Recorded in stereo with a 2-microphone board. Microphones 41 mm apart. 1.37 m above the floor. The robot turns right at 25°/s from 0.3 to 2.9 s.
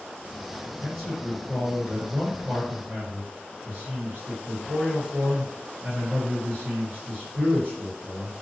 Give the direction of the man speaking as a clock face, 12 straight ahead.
6 o'clock.